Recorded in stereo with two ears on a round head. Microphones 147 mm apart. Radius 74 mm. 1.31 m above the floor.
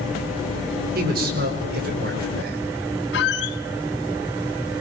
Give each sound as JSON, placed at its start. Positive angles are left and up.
{"t": 0.9, "sound": "a man speaking", "side_deg": -60, "distance_m": 6.0}
{"t": 3.1, "sound": "a squeak", "side_deg": 75, "distance_m": 3.0}